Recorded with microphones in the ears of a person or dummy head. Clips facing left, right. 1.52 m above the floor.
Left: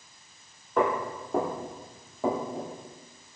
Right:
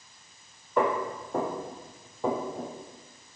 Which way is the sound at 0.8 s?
30° left (ahead or behind).